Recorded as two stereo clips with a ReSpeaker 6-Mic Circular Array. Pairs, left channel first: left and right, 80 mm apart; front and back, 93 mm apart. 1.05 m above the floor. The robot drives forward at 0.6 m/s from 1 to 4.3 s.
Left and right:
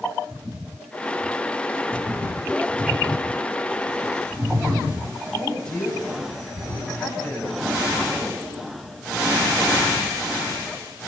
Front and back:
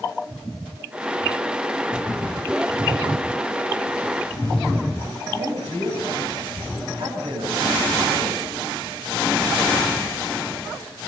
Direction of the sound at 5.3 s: 170° left.